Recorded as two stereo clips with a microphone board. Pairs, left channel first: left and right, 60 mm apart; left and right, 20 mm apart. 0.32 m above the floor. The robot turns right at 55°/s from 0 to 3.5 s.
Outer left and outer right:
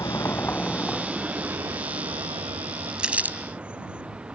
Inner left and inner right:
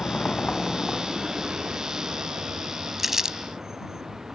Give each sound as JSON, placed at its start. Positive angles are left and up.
{"t": 0.0, "sound": "a vehicle", "side_deg": 65}
{"t": 3.0, "sound": "crumpling", "side_deg": -15}